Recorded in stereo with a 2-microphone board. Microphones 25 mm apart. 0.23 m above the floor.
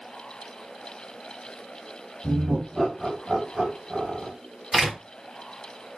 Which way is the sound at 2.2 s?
Centre (ahead or behind).